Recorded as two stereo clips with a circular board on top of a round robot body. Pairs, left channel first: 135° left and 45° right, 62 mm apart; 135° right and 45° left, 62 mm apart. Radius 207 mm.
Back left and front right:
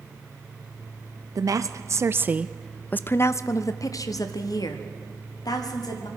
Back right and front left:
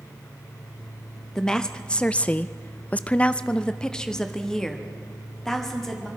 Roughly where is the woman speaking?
Ahead right.